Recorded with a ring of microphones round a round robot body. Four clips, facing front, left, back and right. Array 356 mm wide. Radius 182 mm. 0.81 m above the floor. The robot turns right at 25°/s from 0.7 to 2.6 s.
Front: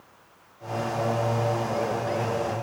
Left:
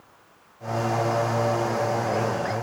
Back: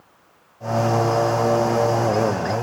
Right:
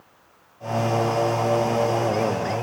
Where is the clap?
No clap in this recording.